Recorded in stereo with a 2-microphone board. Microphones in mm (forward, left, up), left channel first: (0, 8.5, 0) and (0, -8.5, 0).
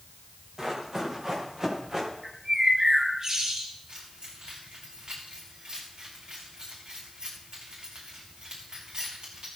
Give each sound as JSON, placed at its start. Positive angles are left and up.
{"t": 0.6, "sound": "running footsteps", "side_deg": -35, "distance_m": 6.0}
{"t": 2.2, "sound": "a bird", "side_deg": -45, "distance_m": 6.5}
{"t": 3.9, "sound": "keys jangling", "side_deg": -75, "distance_m": 6.5}